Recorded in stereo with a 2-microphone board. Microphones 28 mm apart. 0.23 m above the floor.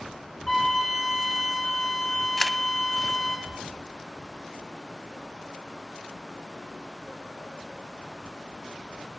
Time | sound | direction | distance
0.5 | a flute | 15° left (ahead or behind) | 7.5 m
2.4 | a camera shutter | 20° left (ahead or behind) | 0.5 m